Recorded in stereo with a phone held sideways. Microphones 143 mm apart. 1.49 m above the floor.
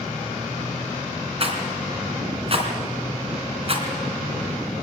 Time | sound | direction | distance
1.4 | a rattle | 45° right (ahead or behind) | 3.5 m